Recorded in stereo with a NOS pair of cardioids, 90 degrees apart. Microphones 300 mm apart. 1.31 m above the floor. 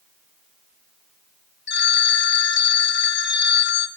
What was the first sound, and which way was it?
A phone ringing, 40° left.